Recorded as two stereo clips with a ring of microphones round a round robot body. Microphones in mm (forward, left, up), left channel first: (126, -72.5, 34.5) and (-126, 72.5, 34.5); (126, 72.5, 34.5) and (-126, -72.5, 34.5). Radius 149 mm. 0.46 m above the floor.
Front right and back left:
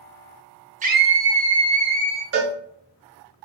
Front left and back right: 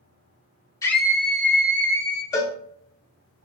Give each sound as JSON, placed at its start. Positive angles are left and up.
{"t": 0.8, "sound": "a scream", "azimuth_deg": 100, "distance_m": 0.8}
{"t": 2.3, "sound": "a cowbell", "azimuth_deg": 110, "distance_m": 0.9}